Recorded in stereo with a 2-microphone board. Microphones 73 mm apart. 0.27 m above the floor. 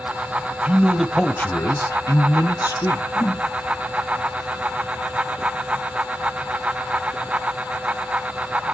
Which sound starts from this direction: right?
A man speaking, at 0.7 s.